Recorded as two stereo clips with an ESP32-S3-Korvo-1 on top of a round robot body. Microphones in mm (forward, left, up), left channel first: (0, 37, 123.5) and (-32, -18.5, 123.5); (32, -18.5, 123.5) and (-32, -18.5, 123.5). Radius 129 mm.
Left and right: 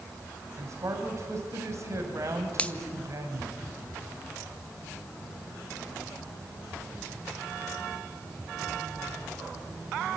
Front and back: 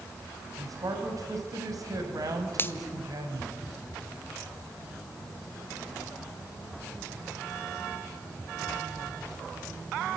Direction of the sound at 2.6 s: 5° left.